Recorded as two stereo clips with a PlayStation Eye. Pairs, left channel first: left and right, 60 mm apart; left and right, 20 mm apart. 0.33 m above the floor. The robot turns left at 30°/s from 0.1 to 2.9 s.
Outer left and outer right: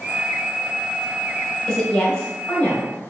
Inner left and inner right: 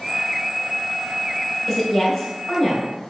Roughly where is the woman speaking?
Centre.